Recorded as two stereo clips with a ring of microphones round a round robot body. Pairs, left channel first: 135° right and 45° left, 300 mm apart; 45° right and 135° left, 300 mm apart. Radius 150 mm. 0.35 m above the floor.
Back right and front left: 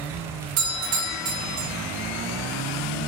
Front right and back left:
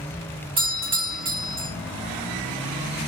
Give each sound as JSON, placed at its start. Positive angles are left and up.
{"t": 0.6, "sound": "a doorbell", "azimuth_deg": 65, "distance_m": 5.0}